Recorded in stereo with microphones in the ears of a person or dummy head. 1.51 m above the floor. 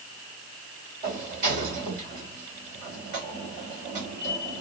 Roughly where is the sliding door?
Right.